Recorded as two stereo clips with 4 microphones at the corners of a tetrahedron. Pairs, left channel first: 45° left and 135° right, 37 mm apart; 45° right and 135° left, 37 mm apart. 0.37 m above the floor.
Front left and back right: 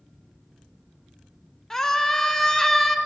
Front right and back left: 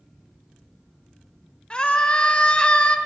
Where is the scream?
20° right, 1.2 m.